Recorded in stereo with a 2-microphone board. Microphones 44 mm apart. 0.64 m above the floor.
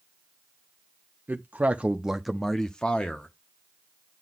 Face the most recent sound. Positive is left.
turn(degrees=30)  # may be behind; listen again after turning